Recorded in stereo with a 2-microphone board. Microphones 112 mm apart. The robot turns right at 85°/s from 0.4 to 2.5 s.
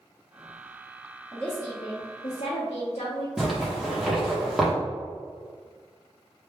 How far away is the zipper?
About 1.0 m.